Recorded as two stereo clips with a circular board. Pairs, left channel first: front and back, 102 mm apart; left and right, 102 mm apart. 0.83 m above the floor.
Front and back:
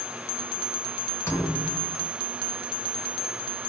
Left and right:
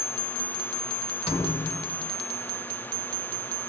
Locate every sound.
1.3 s a thud: 65° left, 1.0 m